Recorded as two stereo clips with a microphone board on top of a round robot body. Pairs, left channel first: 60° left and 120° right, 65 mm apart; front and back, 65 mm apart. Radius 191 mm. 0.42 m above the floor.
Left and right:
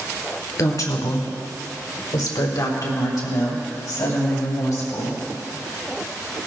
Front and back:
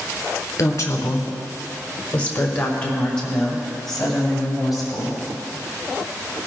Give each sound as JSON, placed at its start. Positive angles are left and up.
{"t": 0.6, "sound": "a woman speaking", "azimuth_deg": 35, "distance_m": 2.5}